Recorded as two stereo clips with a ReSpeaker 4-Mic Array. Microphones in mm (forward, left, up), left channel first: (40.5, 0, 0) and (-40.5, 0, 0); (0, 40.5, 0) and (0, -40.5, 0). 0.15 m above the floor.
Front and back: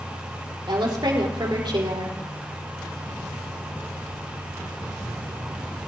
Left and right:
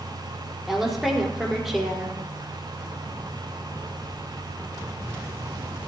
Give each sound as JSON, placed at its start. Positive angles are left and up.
{"t": 0.7, "sound": "a woman speaking", "azimuth_deg": -175, "distance_m": 4.5}